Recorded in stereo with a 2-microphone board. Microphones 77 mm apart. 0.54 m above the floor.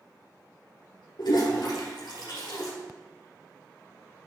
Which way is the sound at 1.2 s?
80° left.